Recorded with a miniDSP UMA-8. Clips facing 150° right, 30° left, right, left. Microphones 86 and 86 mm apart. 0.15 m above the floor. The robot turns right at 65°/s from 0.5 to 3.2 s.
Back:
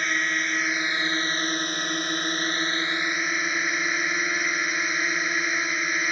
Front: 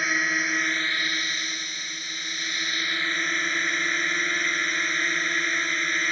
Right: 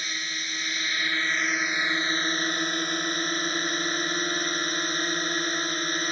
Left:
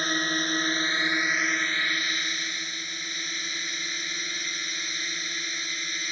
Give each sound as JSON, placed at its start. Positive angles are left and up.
{"t": 0.0, "sound": "a drone", "azimuth_deg": 115}